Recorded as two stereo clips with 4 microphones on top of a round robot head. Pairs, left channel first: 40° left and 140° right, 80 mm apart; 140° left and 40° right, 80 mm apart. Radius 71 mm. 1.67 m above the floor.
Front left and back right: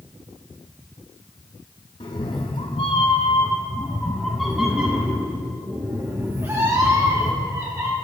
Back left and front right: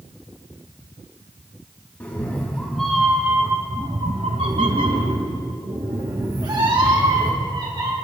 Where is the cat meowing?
70° left, 1.4 m; by 7.9 s 80° right, 3 m.